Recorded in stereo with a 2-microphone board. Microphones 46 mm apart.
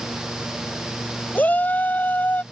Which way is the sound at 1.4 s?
40° left (ahead or behind).